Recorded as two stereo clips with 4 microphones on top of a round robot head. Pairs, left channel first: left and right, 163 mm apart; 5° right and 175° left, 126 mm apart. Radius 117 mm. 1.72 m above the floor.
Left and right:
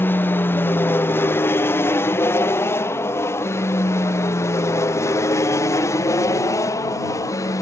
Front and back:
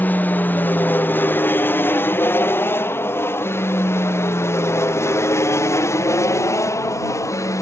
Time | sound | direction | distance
0.0 | an aircraft | 40° left | ?